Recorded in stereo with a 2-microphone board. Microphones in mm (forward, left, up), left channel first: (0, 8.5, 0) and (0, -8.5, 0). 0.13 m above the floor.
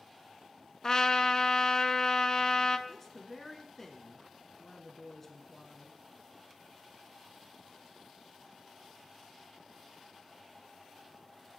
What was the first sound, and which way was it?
A trumpet, 35° left (ahead or behind).